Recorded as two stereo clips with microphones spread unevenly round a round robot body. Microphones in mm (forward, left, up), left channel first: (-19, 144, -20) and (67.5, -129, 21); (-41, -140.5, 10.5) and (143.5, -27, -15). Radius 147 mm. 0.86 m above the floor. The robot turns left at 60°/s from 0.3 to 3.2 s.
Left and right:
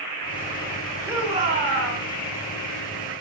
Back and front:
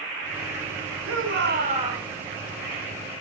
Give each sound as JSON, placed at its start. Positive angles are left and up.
{"t": 1.1, "sound": "a shout", "azimuth_deg": 15, "distance_m": 7.5}